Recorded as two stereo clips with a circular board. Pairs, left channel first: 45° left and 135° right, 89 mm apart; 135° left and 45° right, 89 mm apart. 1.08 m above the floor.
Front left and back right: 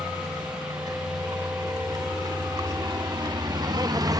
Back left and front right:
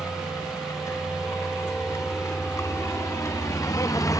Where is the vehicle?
170° right; by 4.2 s 175° right.